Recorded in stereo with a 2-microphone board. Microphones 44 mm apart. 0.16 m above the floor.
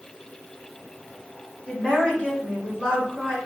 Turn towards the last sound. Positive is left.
turn(degrees=25)  # may be behind; listen again after turning